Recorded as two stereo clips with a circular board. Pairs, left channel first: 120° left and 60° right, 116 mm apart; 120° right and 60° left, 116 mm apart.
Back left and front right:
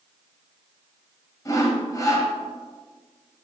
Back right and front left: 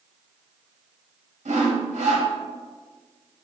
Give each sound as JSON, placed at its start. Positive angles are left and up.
{"t": 1.4, "sound": "sawing", "azimuth_deg": 60, "distance_m": 1.2}